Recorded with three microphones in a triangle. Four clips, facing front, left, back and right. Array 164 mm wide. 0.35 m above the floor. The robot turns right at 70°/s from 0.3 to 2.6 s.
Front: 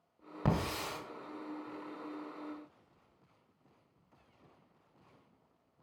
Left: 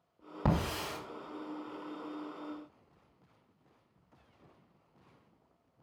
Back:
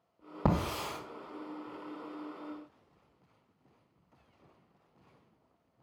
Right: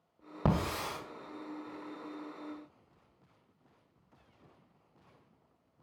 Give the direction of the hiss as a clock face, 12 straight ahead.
5 o'clock.